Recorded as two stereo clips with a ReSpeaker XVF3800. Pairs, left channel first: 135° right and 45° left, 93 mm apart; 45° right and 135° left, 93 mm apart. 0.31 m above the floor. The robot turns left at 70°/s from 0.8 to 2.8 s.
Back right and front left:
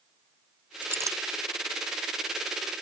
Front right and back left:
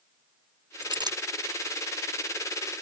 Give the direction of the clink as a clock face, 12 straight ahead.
8 o'clock.